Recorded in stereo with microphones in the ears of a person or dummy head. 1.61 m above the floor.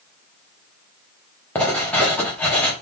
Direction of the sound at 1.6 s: 5° left (ahead or behind).